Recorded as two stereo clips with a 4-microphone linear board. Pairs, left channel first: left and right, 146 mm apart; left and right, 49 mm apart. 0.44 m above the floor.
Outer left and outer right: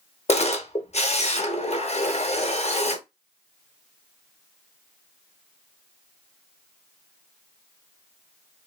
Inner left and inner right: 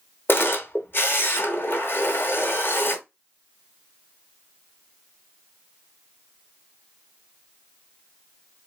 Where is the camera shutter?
45° left (ahead or behind), 0.7 m.